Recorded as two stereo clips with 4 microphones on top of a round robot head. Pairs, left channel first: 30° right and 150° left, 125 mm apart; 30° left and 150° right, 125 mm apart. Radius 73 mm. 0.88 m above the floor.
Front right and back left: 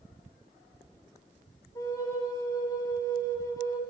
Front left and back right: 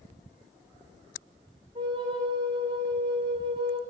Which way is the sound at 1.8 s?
95° right.